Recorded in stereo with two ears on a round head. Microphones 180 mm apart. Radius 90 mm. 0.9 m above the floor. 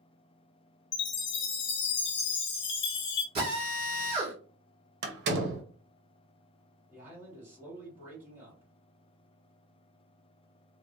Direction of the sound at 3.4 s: 30° right (ahead or behind).